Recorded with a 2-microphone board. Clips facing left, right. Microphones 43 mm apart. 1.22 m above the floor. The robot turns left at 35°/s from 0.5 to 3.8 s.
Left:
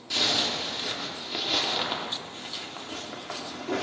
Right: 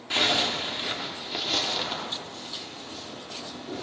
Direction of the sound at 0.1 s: 150° right.